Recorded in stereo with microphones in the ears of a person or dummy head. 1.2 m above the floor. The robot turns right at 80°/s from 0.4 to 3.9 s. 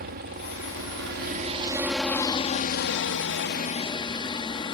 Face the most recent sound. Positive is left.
turn(degrees=155)